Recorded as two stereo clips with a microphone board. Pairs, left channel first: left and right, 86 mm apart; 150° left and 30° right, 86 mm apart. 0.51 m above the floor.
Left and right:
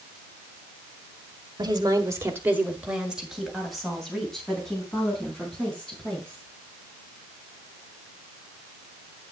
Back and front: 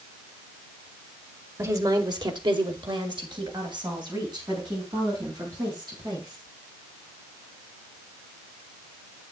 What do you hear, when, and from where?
1.6 s a woman speaking: 75° right, 1.4 m; by 6.5 s 10° left, 6.5 m